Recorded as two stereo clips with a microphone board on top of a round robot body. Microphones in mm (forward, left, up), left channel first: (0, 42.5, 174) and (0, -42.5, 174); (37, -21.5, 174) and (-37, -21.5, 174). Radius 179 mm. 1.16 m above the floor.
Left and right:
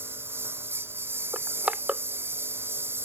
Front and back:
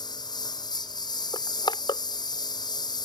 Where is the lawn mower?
25° right.